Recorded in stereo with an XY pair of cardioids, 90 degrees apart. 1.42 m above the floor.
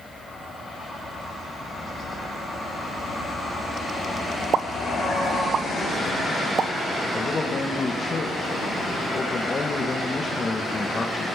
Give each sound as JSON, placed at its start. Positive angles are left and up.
{"t": 4.5, "sound": "a pop", "azimuth_deg": -60, "distance_m": 1.0}
{"t": 7.1, "sound": "a man speaking", "azimuth_deg": 35, "distance_m": 2.0}